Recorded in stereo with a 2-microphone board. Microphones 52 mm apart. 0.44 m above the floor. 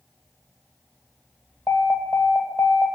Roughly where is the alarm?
Left.